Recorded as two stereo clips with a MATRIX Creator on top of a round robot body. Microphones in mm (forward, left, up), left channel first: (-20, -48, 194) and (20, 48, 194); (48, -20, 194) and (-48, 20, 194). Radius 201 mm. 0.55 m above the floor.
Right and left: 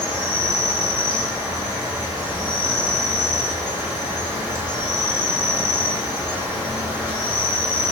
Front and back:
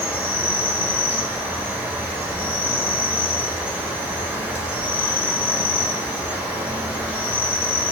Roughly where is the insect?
Left.